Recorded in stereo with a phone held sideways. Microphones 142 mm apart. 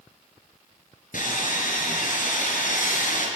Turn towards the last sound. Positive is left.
turn(degrees=70)  # may be behind; listen again after turning